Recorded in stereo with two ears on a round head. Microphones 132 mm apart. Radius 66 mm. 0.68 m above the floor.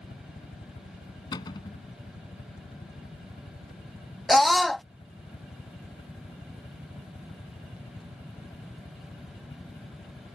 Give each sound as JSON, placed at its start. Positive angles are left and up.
{"t": 0.0, "sound": "a helicopter", "side_deg": 55}
{"t": 1.3, "sound": "a cupboard door", "side_deg": 30}
{"t": 4.3, "sound": "a scream", "side_deg": 0}